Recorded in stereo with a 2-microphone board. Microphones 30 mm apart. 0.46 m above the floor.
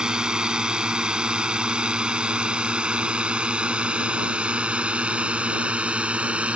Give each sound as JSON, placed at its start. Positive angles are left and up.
{"t": 0.0, "sound": "a drone", "side_deg": -25}